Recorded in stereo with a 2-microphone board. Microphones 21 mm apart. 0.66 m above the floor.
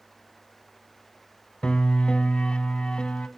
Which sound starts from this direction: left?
A piano, at 1.6 s.